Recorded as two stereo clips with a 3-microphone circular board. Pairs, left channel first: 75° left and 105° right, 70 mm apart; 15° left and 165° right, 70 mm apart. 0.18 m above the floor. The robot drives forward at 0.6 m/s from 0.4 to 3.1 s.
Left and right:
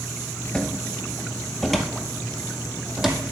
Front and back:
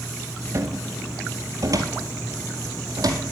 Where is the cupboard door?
160° left, 1.2 m; by 3.2 s 170° left, 2.5 m.